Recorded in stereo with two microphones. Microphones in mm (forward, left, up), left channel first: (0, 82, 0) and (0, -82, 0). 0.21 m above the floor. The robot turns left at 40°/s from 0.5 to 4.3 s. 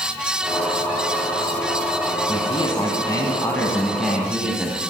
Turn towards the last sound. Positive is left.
turn(degrees=-10)